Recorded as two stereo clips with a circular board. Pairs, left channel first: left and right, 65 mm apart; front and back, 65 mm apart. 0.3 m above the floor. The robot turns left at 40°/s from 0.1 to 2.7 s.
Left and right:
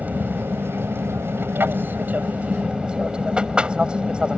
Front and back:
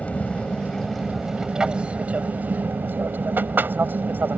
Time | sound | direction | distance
0.0 | an aircraft | 50° right | ?